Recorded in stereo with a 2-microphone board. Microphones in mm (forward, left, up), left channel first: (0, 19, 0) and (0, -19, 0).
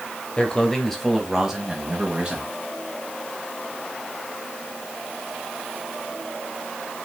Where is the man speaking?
25° left (ahead or behind), 1.0 m; by 2.5 s 30° right (ahead or behind), 1.9 m.